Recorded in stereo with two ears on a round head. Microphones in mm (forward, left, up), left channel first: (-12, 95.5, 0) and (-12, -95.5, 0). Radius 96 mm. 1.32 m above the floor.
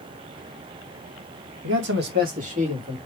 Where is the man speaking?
60° right (ahead or behind), 1.7 m; by 3.0 s 25° right (ahead or behind), 3 m.